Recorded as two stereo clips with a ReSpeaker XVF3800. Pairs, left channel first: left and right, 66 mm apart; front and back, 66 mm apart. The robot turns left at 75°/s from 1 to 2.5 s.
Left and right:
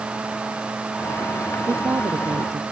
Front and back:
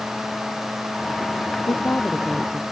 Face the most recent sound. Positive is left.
turn(degrees=-100)